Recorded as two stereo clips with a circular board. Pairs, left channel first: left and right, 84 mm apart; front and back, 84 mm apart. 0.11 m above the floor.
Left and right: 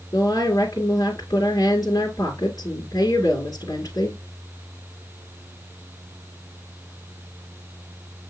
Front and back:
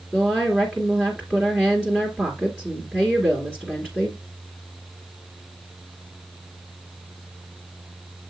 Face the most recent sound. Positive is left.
turn(degrees=80)